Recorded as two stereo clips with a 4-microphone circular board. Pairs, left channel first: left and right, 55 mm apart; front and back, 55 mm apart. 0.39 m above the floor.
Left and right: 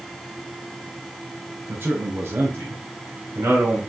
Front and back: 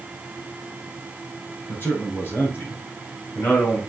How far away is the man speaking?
About 6 m.